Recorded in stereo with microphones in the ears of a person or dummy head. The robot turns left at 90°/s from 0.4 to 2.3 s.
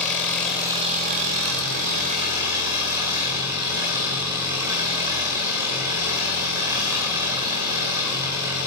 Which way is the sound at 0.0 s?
10° left.